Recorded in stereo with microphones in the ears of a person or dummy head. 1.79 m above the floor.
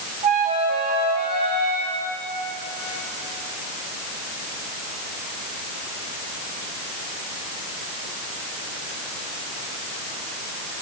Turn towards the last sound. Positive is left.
turn(degrees=-35)  # may be behind; listen again after turning